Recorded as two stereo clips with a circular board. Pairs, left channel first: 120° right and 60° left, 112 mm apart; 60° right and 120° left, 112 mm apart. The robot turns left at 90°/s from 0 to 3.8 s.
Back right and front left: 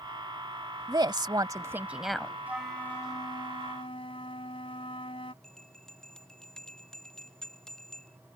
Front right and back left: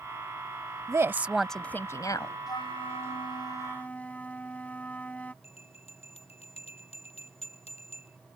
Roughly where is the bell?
Ahead right.